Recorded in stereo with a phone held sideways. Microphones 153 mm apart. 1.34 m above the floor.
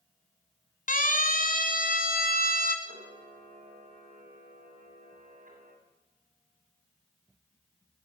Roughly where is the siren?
Left.